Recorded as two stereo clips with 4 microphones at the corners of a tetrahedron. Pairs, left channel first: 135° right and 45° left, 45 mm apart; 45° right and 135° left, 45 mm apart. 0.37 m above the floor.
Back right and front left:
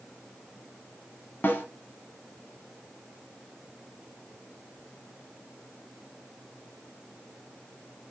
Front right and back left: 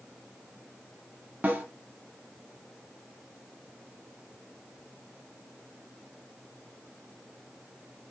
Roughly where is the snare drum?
Behind.